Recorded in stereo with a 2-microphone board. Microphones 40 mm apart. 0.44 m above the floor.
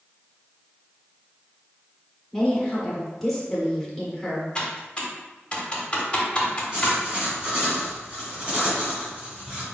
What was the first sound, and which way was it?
A woman speaking, 5° left (ahead or behind).